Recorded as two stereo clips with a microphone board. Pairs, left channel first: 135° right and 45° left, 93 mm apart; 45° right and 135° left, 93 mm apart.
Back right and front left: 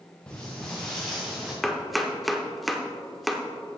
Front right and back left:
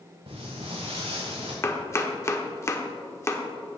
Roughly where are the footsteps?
Behind left.